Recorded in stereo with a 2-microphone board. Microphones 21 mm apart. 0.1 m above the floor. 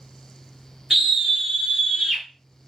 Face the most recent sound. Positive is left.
turn(degrees=-10)  # may be behind; listen again after turning